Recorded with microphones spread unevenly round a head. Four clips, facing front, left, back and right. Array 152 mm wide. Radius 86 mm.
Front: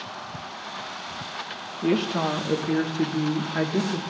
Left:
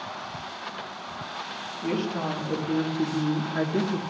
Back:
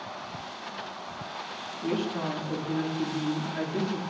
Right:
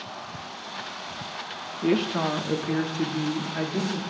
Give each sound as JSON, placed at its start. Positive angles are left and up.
{"t": 1.8, "sound": "a woman speaking", "azimuth_deg": -40, "distance_m": 1.3}